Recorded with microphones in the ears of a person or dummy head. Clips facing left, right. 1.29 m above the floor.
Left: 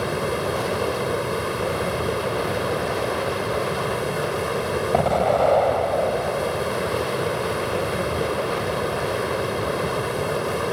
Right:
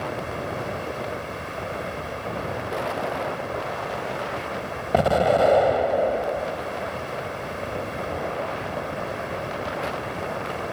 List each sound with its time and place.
0.0 s running water: 65° left (ahead or behind)
4.9 s an explosion: 10° right (ahead or behind)